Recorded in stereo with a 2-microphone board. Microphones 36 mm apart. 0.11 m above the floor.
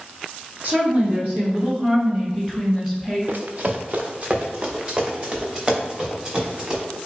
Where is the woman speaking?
40° right (ahead or behind), 2 m; by 3.2 s 5° right (ahead or behind), 1.8 m.